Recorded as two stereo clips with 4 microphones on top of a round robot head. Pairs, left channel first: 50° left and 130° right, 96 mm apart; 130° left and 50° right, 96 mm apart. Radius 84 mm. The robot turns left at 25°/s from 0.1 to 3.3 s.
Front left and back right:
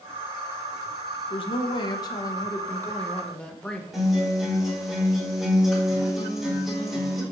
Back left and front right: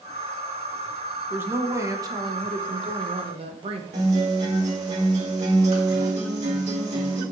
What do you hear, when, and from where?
1.3 s a woman speaking: 20° left, 1.0 m; by 3.8 s 30° right, 1.0 m
3.9 s a guitar: 40° right, 3.5 m